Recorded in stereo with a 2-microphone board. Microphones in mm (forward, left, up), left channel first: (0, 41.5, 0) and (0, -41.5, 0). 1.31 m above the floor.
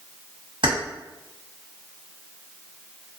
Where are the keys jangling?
70° right (ahead or behind), 1.7 m.